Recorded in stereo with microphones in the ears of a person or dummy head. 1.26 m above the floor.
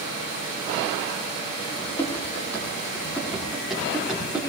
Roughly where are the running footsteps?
Centre.